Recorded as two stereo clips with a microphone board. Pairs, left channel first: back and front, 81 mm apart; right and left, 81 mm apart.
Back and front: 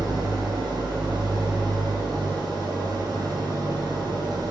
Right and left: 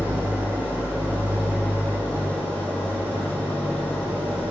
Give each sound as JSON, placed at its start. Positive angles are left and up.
{"t": 0.0, "sound": "an engine running", "azimuth_deg": -30, "distance_m": 4.5}